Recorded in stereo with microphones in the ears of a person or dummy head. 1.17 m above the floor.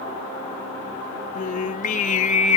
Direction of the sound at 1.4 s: 40° left (ahead or behind).